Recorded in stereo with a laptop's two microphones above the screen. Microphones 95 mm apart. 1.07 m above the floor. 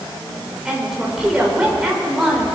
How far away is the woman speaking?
About 4 m.